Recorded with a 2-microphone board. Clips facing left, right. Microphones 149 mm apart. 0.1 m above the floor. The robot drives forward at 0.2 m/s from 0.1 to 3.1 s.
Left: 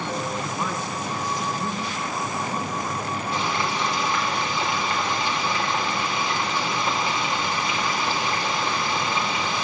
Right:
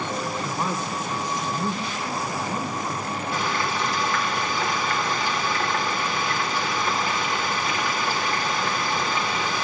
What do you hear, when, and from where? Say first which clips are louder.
0.4 s a man speaking: right 1 dB; 20° right (ahead or behind), 3.5 m; by 3.2 s 15° right (ahead or behind), 4 m
3.3 s frying: even; 20° left (ahead or behind), 4 m